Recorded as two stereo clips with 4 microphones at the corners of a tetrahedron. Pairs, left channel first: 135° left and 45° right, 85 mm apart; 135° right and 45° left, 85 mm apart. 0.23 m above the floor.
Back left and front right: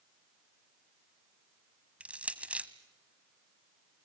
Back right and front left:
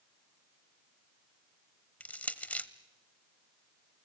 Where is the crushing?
90° right, 0.9 m.